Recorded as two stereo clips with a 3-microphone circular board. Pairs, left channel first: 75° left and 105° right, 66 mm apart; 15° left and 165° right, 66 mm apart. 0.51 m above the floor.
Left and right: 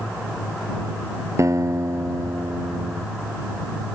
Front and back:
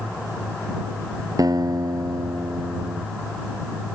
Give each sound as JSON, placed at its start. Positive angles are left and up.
{"t": 1.4, "sound": "a guitar", "azimuth_deg": -145}